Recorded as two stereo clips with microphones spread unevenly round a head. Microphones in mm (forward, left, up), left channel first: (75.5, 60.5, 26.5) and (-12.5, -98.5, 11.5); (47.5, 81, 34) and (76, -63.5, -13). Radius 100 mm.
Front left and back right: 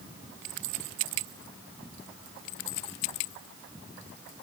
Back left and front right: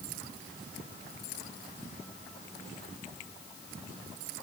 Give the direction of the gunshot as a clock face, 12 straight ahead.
No gunshot in this recording.